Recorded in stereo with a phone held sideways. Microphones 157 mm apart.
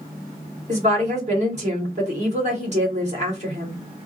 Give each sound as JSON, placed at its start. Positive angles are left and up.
{"t": 0.7, "sound": "a woman speaking", "side_deg": -45, "distance_m": 1.8}